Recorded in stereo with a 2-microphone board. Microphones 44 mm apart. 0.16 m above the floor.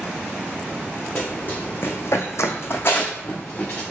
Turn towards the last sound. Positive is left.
turn(degrees=30)  # may be behind; listen again after turning